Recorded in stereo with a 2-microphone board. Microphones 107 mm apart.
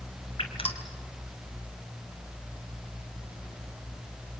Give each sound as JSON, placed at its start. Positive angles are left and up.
{"t": 0.4, "sound": "dripping", "side_deg": 65, "distance_m": 2.5}